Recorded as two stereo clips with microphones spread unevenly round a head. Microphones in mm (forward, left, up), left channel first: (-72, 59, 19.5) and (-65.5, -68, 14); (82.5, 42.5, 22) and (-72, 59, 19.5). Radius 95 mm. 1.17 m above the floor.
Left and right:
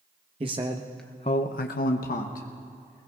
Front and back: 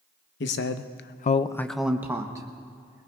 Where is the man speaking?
25° right, 0.9 m; by 3.1 s 110° left, 1.9 m.